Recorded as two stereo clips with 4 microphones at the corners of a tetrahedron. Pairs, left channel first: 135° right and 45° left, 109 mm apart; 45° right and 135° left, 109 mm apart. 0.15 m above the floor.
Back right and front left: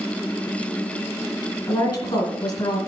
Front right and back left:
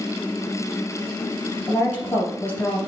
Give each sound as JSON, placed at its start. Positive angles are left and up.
{"t": 1.7, "sound": "a woman speaking", "azimuth_deg": -110, "distance_m": 2.5}